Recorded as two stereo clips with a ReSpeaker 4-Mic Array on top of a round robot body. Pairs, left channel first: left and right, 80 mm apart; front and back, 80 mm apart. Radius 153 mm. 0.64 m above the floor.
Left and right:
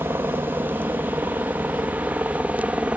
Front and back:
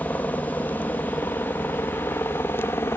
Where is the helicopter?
50° right; by 3.0 s 30° right.